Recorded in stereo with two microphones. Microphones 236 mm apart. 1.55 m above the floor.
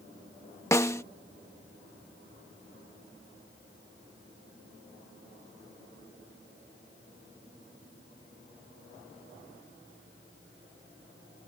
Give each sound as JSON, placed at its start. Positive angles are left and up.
{"t": 0.7, "sound": "a snare drum", "side_deg": 10}